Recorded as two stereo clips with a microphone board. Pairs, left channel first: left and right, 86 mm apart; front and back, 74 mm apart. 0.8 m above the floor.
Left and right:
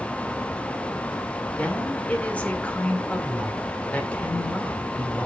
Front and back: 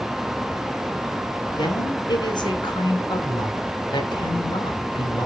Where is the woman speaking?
15° left, 2 m.